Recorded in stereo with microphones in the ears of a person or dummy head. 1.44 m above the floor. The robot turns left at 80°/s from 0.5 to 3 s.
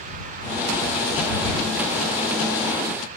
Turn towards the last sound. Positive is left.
No sound to turn to.